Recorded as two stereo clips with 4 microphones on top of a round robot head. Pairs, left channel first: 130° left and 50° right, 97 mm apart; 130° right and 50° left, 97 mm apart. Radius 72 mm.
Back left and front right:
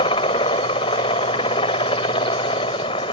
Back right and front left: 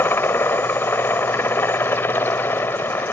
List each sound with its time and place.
0.0 s a helicopter: 160° left